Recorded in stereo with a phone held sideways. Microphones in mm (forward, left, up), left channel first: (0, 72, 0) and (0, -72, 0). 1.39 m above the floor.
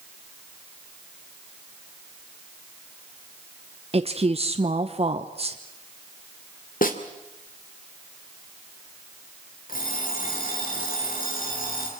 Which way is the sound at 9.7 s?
75° left (ahead or behind).